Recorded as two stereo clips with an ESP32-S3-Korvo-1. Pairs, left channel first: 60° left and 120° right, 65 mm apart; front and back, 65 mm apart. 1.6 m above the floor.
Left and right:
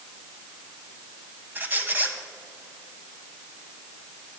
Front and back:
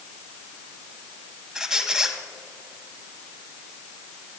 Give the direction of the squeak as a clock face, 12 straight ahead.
4 o'clock.